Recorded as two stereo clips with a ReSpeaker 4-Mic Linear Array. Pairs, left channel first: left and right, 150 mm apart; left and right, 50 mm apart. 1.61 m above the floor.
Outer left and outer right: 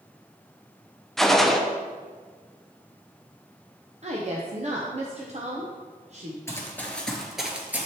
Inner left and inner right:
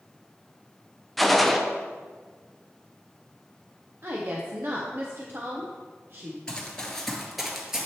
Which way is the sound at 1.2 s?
Centre (ahead or behind).